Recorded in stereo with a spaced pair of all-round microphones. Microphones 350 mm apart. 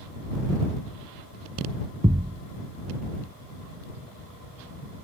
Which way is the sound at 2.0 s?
20° right (ahead or behind).